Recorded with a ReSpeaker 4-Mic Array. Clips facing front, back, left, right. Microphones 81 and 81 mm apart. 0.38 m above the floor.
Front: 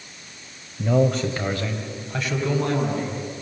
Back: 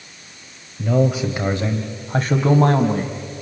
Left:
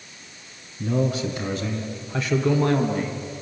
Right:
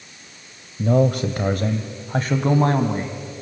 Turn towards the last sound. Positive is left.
turn(degrees=-150)